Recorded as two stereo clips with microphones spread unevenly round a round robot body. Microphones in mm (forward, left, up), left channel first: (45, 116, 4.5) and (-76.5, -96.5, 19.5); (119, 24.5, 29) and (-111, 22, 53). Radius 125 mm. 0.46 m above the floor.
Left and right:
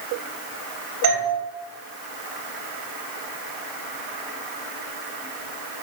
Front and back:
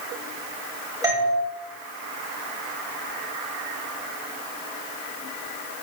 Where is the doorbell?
100° right, 4.5 m.